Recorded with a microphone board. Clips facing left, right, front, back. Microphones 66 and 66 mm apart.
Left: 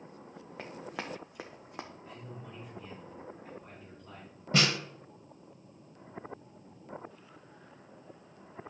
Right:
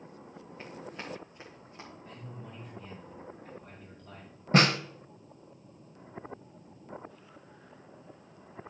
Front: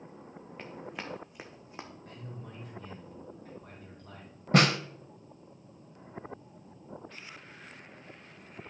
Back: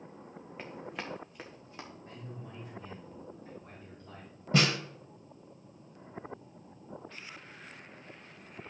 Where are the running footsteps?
95° left, 1.6 m; by 1.9 s 65° left, 1.3 m.